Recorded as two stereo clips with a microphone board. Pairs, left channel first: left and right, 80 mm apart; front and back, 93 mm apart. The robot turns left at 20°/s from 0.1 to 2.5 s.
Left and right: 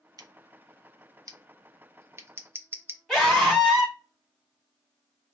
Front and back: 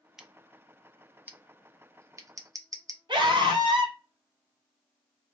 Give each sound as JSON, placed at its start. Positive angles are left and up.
{"t": 0.2, "sound": "scissors", "azimuth_deg": -95, "distance_m": 0.6}
{"t": 3.1, "sound": "a scream", "azimuth_deg": 175, "distance_m": 1.8}